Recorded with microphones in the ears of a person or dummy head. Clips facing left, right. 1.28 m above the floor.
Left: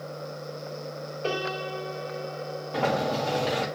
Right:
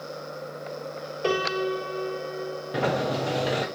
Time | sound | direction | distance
1.2 | a piano | 60° right (ahead or behind) | 4 m
2.7 | a sliding door | 15° right (ahead or behind) | 1.0 m